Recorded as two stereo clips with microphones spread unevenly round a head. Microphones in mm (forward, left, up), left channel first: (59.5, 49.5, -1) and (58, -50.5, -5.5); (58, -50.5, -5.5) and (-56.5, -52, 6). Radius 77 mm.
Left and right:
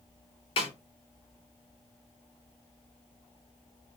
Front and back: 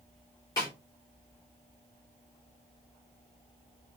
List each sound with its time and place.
0.6 s a snare drum: 70° left, 2 m